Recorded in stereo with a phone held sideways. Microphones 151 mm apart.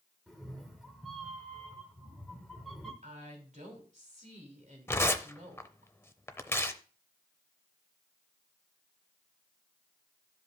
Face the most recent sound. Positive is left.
turn(degrees=15)  # may be behind; listen again after turning